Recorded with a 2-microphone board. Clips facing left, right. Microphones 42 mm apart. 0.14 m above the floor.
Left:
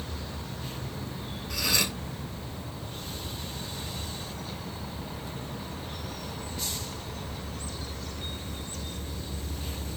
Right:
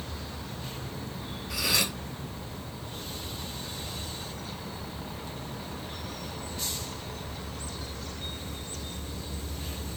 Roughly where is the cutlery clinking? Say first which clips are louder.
Even; centre.